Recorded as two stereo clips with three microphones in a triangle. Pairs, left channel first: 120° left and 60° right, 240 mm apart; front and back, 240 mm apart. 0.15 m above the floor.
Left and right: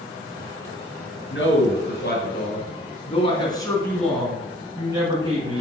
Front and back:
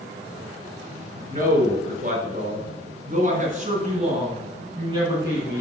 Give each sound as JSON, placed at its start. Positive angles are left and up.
{"t": 1.3, "sound": "a man speaking", "azimuth_deg": 135, "distance_m": 2.5}